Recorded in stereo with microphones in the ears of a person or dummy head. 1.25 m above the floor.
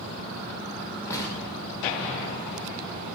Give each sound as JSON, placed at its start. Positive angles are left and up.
{"t": 1.1, "sound": "an explosion", "side_deg": 15, "distance_m": 1.6}